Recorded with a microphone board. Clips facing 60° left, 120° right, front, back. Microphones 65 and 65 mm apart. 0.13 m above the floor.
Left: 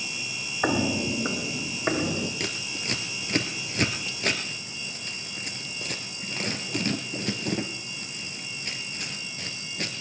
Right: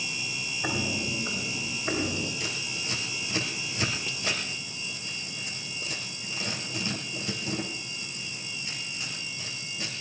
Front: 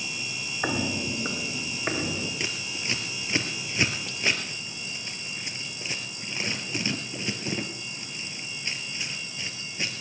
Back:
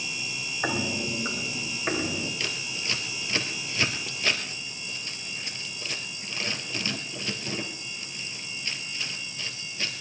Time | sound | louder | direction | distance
0.6 | footsteps | left 7 dB, front 1 dB | 85° left | 1.5 m
2.4 | scissors | left 2 dB, even | 65° left | 1.9 m